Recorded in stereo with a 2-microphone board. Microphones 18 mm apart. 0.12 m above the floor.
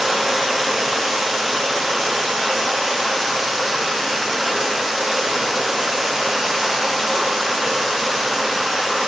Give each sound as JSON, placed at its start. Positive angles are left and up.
{"t": 0.0, "sound": "running water", "side_deg": -30, "distance_m": 9.0}